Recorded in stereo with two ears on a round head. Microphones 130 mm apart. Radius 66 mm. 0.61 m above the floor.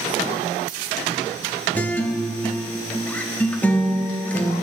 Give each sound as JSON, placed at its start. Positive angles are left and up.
{"t": 1.8, "sound": "a guitar", "side_deg": 10, "distance_m": 0.8}